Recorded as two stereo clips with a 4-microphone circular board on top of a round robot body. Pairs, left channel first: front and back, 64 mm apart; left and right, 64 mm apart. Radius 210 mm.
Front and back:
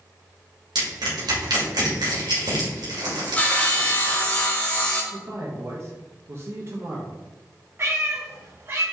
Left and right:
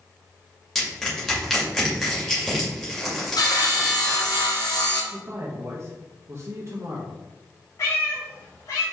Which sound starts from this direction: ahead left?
Sawing, at 3.4 s.